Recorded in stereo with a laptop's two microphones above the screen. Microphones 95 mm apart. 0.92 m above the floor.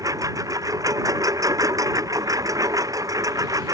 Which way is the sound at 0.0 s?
35° right (ahead or behind).